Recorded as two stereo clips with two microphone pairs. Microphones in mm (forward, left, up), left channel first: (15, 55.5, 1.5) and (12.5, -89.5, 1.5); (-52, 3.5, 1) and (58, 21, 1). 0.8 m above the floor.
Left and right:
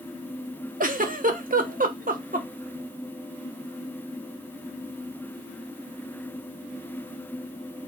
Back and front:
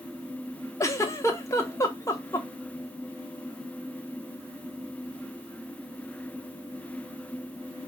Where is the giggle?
110° right, 0.6 m.